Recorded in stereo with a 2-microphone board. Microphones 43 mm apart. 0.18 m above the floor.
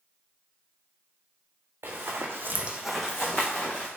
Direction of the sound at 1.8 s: 75° right (ahead or behind).